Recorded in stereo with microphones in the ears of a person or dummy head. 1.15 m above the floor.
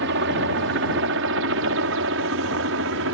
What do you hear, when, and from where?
0.0 s a helicopter: 60° right (ahead or behind); by 3.1 s 65° right (ahead or behind)